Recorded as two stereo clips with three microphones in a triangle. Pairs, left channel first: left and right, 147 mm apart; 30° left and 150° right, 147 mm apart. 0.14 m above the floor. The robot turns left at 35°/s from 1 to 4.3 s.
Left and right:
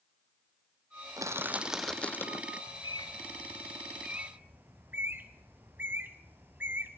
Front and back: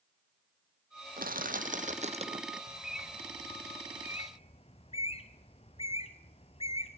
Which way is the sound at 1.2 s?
155° right.